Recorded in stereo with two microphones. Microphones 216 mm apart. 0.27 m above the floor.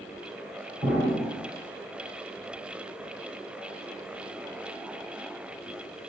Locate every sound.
0.8 s an explosion: 5° right (ahead or behind), 1.3 m